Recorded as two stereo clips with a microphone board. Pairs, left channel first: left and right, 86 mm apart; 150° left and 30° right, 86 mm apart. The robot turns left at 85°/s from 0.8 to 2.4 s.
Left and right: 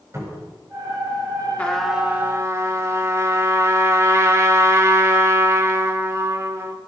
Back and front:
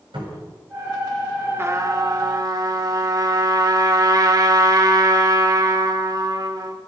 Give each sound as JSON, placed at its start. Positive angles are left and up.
{"t": 0.1, "sound": "a cupboard door", "azimuth_deg": -35, "distance_m": 8.0}
{"t": 1.6, "sound": "a trumpet", "azimuth_deg": 20, "distance_m": 1.6}